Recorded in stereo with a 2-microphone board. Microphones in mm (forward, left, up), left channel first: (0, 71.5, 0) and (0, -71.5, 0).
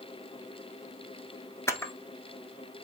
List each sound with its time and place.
1.7 s a camera shutter: 20° left (ahead or behind), 0.8 m